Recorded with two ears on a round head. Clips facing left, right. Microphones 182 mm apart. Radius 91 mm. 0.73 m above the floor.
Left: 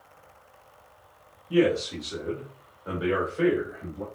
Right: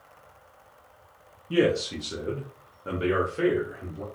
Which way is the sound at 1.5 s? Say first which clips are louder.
Left 1 dB; 25° right (ahead or behind).